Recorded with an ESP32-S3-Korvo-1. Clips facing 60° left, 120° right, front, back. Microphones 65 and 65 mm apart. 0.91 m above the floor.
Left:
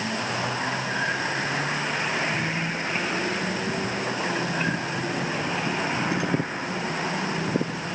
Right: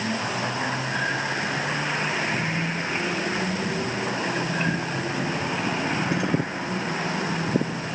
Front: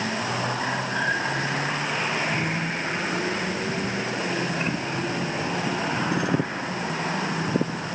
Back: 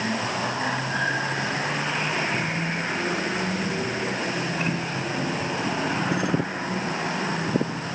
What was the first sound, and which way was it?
Only background noise.